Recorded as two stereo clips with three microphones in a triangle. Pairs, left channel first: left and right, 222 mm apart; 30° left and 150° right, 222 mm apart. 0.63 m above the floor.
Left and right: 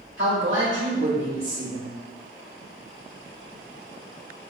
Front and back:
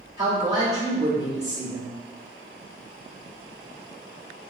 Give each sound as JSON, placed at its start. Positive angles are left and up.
{"t": 0.2, "sound": "a woman speaking", "azimuth_deg": -80, "distance_m": 1.7}